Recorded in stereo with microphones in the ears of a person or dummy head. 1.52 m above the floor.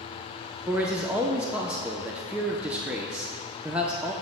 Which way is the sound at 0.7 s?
5° right (ahead or behind).